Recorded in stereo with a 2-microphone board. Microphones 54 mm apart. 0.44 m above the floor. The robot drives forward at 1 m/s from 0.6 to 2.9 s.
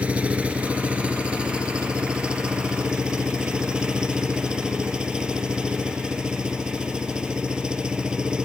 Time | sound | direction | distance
0.0 | an engine running | 25° right (ahead or behind) | ?